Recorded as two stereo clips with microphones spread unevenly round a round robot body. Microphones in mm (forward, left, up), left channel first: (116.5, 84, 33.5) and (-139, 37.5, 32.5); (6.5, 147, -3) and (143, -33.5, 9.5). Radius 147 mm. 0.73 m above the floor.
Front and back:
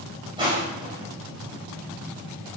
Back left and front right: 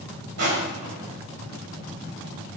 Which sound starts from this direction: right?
Crushing, at 0.4 s.